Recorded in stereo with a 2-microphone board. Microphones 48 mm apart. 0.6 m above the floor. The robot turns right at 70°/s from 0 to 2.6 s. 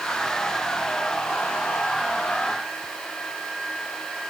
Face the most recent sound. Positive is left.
No sound to turn to.